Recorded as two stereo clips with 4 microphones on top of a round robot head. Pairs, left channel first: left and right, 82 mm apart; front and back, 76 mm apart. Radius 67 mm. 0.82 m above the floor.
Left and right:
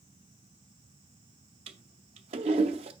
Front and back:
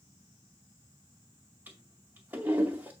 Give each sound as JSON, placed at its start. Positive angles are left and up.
{"t": 1.7, "sound": "a toilet flushing", "azimuth_deg": -105, "distance_m": 0.7}